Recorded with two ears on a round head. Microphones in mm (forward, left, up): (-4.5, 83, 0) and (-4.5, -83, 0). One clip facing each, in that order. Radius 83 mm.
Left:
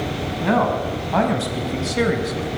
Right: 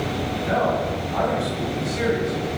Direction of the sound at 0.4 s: 75° left (ahead or behind).